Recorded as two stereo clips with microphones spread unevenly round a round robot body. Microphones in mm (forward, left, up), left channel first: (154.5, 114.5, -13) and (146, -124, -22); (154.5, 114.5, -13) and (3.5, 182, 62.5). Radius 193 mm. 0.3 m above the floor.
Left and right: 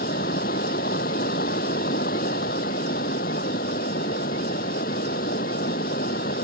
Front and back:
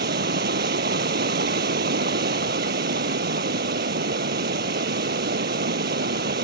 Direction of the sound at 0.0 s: 155° left.